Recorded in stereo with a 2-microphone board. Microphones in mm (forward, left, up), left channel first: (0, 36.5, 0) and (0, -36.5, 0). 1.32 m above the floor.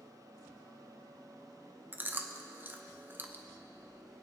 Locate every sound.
1.9 s chewing: 25° right (ahead or behind), 0.6 m